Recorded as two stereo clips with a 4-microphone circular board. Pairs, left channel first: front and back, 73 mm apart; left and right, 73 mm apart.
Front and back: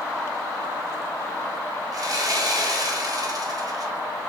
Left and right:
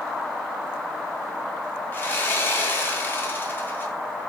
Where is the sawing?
150° left, 0.5 m.